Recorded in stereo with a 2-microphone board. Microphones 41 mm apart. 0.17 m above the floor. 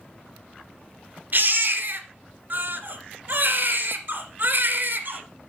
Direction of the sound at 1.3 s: 45° right (ahead or behind).